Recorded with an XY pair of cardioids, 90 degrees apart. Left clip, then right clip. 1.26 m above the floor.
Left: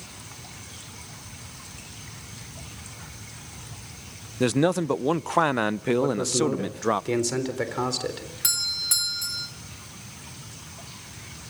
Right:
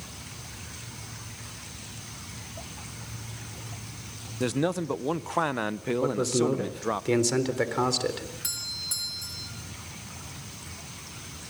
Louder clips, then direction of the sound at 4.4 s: Left 5 dB; 45° left.